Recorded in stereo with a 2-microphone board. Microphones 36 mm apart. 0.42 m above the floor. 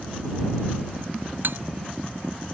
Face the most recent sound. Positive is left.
turn(degrees=-65)  # may be behind; listen again after turning